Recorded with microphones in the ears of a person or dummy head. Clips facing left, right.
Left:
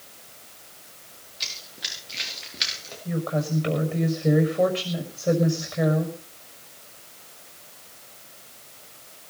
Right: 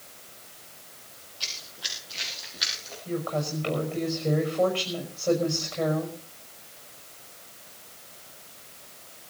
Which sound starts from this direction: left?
Running footsteps, at 1.4 s.